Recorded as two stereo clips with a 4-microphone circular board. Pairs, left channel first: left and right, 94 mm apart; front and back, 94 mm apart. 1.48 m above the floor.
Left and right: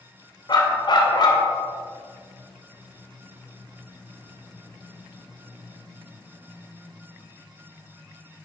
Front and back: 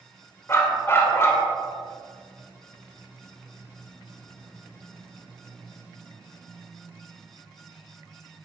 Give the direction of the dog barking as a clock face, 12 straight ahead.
10 o'clock.